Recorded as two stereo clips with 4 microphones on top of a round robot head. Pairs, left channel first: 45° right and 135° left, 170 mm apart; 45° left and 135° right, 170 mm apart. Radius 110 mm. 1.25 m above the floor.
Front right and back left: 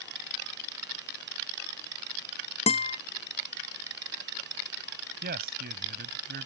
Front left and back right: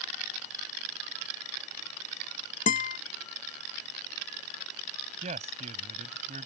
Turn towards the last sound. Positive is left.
turn(degrees=170)